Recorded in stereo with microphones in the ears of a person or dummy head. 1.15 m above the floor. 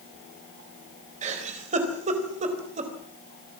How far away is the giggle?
About 3.5 m.